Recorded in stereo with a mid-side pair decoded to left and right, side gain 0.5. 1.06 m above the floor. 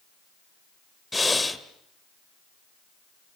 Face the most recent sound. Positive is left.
turn(degrees=15)